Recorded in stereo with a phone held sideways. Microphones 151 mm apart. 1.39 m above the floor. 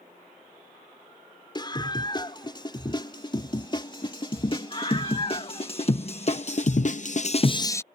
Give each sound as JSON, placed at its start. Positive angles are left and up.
{"t": 1.6, "sound": "a scream", "side_deg": 30}